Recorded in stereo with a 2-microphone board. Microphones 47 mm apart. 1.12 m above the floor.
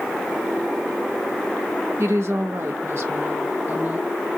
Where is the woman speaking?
60° right (ahead or behind), 1.2 m; by 4.1 s 35° right (ahead or behind), 1.2 m.